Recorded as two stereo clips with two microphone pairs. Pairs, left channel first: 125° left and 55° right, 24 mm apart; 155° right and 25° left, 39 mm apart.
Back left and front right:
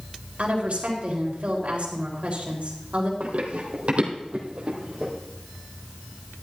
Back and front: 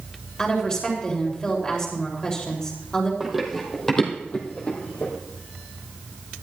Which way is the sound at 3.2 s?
55° right.